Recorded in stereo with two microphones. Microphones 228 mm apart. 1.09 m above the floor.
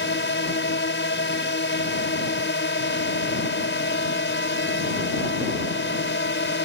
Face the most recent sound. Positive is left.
turn(degrees=55)  # may be behind; listen again after turning